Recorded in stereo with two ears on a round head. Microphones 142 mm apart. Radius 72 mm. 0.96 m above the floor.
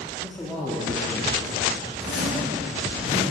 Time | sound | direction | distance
0.2 | a man speaking | 10° left (ahead or behind) | 1.9 m
2.0 | a zipper | 75° left (ahead or behind) | 5 m